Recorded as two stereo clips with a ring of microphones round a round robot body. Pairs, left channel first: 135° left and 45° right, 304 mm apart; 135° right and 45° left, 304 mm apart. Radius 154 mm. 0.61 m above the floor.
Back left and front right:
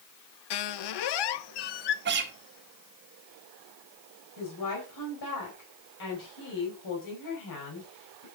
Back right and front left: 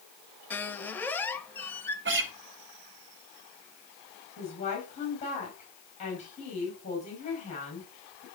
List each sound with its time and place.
0.5 s a squeak: 140° left, 0.7 m
2.0 s a guitar: straight ahead, 1.8 m
4.4 s a woman speaking: 155° left, 4.5 m